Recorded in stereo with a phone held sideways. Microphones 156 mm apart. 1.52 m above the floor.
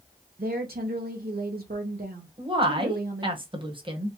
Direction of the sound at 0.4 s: 75° right (ahead or behind).